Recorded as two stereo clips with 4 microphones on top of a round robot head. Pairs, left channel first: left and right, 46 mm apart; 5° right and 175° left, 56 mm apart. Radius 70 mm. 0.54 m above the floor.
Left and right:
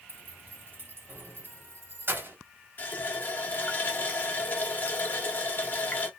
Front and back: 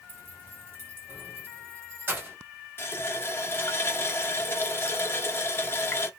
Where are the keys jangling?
125° right, 1.6 m.